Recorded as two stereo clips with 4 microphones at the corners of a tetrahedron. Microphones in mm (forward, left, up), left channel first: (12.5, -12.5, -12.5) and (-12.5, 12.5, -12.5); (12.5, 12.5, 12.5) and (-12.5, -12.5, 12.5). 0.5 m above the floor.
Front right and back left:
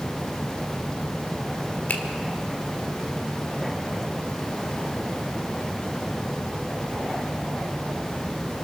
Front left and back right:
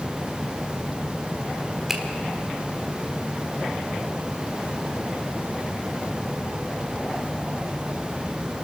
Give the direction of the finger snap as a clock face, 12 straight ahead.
2 o'clock.